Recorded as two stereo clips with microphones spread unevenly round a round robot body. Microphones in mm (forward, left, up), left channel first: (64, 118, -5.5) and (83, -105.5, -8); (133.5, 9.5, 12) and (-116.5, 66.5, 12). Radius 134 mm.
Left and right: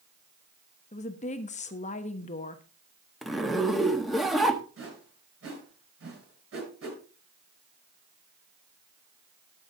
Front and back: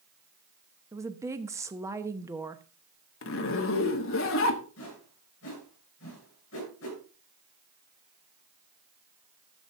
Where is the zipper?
5° left, 1.2 m.